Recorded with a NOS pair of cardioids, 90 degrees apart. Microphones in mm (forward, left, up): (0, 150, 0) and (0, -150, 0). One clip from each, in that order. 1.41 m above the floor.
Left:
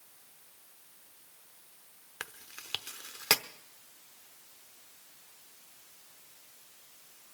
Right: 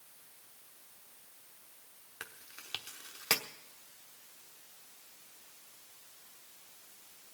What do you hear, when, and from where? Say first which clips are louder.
2.2 s chewing: left 4 dB; 20° left, 0.8 m